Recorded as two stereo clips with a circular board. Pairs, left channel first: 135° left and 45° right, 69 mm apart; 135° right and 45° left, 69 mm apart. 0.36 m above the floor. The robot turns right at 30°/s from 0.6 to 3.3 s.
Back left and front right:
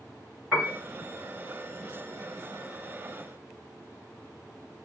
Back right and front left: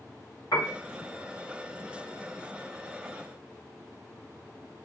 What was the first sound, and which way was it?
A piano, 110° right.